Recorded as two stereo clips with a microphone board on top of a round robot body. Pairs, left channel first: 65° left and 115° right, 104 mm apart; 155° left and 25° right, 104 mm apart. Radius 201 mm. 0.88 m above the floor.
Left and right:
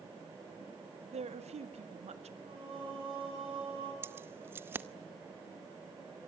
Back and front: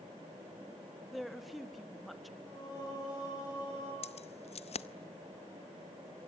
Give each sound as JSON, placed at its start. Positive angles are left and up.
{"t": 1.1, "sound": "a woman speaking", "azimuth_deg": -115, "distance_m": 2.0}
{"t": 2.4, "sound": "singing", "azimuth_deg": -150, "distance_m": 8.0}
{"t": 4.0, "sound": "keys jangling", "azimuth_deg": 175, "distance_m": 0.8}